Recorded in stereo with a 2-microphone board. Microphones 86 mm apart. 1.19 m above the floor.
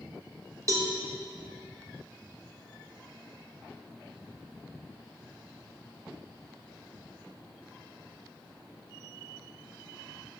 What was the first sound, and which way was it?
A cowbell, 40° right (ahead or behind).